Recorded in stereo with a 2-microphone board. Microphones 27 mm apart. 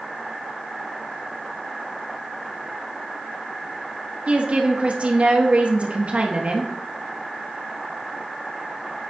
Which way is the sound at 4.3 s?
50° right (ahead or behind).